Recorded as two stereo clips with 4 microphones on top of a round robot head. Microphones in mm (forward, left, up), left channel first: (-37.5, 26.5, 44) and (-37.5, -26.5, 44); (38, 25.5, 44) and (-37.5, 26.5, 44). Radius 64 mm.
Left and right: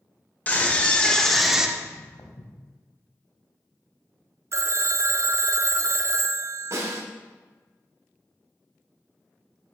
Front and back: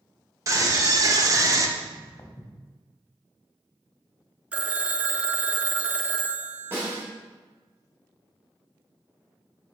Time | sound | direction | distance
0.5 | a scream | 145° left | 2 m
1.8 | footsteps | 60° left | 1.8 m
4.5 | a phone ringing | 105° right | 0.5 m
6.7 | a snare drum | 120° right | 3 m